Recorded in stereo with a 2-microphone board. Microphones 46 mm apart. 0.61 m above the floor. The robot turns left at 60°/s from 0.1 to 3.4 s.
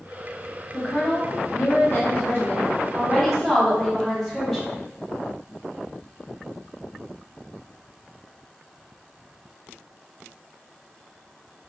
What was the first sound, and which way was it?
A woman speaking, 155° left.